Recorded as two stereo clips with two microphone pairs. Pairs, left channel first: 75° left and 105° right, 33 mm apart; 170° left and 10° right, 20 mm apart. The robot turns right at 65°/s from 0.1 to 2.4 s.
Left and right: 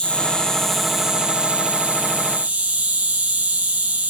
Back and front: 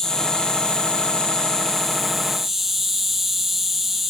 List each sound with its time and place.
0.0 s an insect: 120° left, 1.9 m; by 4.1 s 90° right, 1.9 m